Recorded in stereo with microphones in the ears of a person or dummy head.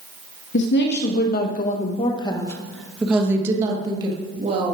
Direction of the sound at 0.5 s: 75° left (ahead or behind).